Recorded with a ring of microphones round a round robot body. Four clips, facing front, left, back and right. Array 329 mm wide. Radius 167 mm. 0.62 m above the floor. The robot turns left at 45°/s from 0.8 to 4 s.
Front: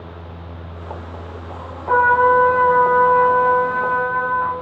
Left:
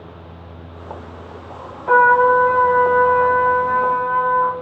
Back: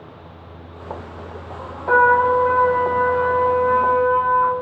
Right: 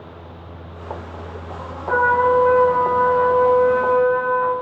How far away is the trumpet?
About 0.8 m.